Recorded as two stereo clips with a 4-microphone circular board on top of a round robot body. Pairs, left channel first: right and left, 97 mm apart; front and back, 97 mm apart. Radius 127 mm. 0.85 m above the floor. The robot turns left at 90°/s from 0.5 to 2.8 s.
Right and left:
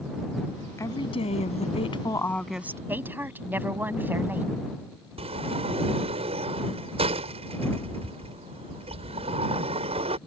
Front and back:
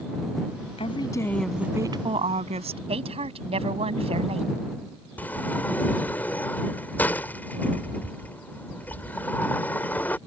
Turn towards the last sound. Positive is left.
turn(degrees=75)